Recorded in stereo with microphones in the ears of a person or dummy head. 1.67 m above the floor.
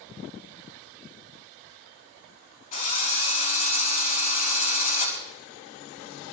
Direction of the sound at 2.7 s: 50° left (ahead or behind).